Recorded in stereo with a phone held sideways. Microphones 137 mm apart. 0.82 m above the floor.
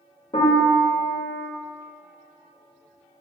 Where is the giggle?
I don't hear a giggle.